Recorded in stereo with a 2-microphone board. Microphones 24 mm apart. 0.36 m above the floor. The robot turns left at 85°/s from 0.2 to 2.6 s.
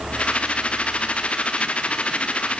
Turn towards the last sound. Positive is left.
No sound to turn to.